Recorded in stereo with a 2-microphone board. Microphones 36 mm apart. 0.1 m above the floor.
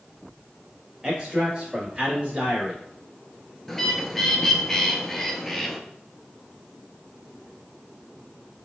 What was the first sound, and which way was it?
A man speaking, 25° right (ahead or behind).